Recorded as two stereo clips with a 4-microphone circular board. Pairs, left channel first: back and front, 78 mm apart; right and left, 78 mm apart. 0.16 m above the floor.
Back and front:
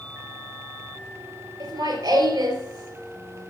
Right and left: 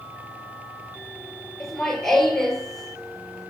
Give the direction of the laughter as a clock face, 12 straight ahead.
12 o'clock.